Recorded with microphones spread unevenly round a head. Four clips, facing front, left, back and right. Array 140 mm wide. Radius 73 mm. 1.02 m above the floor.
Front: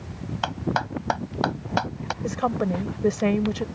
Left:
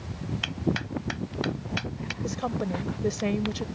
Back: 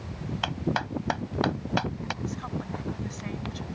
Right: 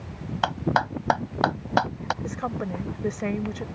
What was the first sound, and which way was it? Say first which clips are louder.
A clap: right 7 dB, front 4 dB; 70° right.